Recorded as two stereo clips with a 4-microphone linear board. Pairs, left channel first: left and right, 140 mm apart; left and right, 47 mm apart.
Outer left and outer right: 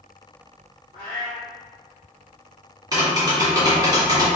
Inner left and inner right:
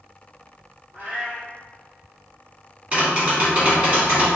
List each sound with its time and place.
0.9 s a cat meowing: 40° right (ahead or behind), 2.0 m
2.9 s tapping: 25° right (ahead or behind), 1.6 m